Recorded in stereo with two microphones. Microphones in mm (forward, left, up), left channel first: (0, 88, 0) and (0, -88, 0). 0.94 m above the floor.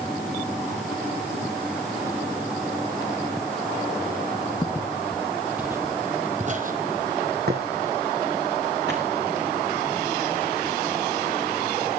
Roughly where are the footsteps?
Left.